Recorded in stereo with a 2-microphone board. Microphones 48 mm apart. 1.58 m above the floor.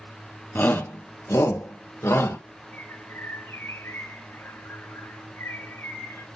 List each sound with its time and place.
0.6 s a shout: 40° left (ahead or behind), 1.3 m; by 2.4 s 65° left (ahead or behind), 2 m
2.7 s a bird: 90° left, 2.5 m